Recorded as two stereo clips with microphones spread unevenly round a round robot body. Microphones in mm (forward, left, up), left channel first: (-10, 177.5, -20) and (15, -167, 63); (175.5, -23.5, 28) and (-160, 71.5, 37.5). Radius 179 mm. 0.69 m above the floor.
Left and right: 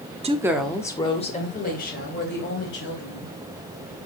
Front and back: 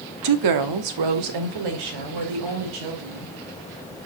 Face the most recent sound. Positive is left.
turn(degrees=145)